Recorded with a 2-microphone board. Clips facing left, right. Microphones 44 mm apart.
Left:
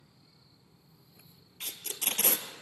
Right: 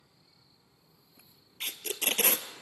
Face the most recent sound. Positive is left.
turn(degrees=-55)  # may be behind; listen again after turning